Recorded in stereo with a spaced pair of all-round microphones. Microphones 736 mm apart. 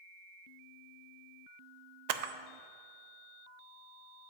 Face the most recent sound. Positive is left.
turn(degrees=-65)  # may be behind; listen again after turning